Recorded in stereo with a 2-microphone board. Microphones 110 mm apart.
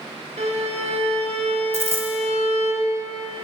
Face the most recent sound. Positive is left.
turn(degrees=-25)  # may be behind; listen again after turning